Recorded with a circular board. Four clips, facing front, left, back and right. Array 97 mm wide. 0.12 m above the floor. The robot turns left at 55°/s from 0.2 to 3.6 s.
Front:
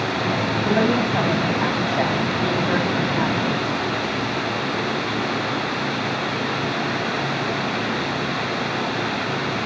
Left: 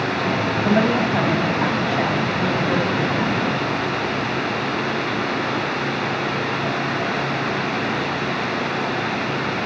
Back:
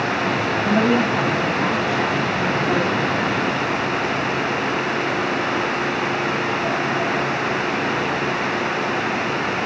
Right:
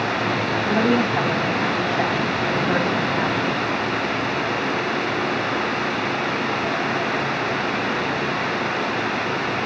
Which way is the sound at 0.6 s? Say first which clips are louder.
Left 1 dB, back 2 dB; 115° left.